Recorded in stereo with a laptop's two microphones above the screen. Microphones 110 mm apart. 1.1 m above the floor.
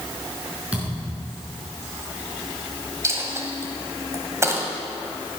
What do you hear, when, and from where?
0.7 s a thud: 10° right (ahead or behind), 5 m
3.0 s a dropped coin: 25° right (ahead or behind), 1.8 m